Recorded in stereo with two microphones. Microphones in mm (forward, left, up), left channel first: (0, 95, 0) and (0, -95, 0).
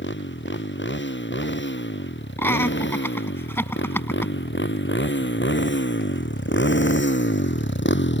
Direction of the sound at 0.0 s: 80° left.